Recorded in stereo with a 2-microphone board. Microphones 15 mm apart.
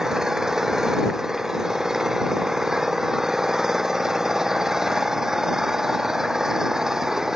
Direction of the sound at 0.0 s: 35° right (ahead or behind).